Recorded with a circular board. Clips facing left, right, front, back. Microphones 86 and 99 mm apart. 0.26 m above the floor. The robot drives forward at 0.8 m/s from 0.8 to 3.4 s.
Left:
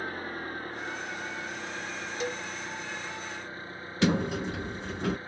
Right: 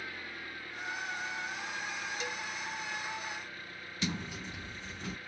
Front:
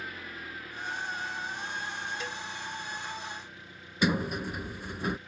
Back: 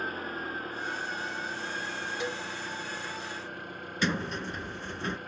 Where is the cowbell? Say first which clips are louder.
Left 6 dB, back 4 dB; 110° left; by 2.5 s 125° left.